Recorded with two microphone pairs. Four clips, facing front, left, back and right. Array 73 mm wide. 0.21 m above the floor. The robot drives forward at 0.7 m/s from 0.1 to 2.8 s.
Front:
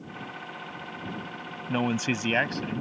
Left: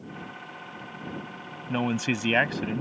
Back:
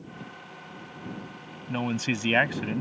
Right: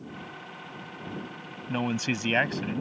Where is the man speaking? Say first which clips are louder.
Left 2 dB, front 2 dB; 25° left; by 2.8 s 165° left.